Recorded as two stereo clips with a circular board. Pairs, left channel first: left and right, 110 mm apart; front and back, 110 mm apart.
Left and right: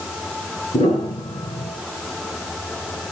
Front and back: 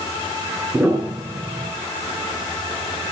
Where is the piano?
105° left, 7.5 m.